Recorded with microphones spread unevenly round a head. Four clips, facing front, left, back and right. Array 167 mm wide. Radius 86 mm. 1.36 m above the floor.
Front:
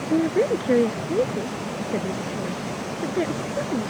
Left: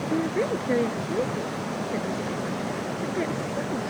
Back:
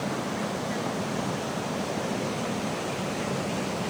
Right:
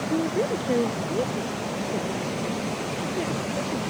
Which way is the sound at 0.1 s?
5° right.